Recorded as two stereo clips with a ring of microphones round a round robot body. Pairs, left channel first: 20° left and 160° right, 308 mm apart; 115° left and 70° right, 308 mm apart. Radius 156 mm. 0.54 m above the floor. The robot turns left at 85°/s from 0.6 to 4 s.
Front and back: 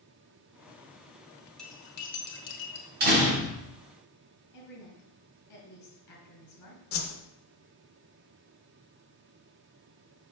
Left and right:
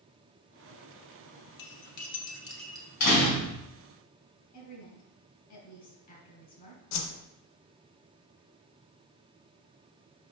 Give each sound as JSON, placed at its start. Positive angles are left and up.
{"t": 1.6, "sound": "cutlery clinking", "azimuth_deg": 110, "distance_m": 1.0}
{"t": 3.0, "sound": "a door slam", "azimuth_deg": 145, "distance_m": 2.5}
{"t": 4.5, "sound": "a woman speaking", "azimuth_deg": 50, "distance_m": 3.0}
{"t": 6.9, "sound": "a whoosh", "azimuth_deg": 75, "distance_m": 0.7}